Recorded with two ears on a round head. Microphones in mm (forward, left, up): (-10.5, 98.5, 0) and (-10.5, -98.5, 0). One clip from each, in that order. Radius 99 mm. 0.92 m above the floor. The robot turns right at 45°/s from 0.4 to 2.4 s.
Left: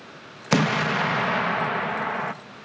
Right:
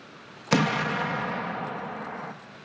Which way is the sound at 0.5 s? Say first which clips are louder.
Left 3 dB; straight ahead.